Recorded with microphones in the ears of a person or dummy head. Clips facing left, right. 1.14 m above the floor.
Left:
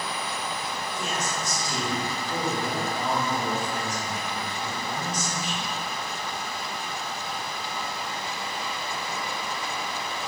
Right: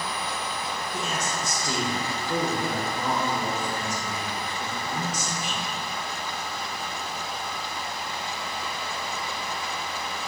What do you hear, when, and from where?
0.9 s a man speaking: 55° right (ahead or behind), 1.0 m